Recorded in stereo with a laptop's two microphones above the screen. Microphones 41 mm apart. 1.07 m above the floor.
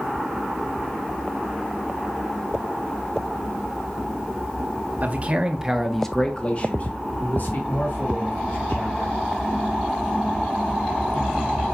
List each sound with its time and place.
5.0 s a man speaking: 40° right (ahead or behind), 1.0 m; by 9.2 s 65° left (ahead or behind), 2.5 m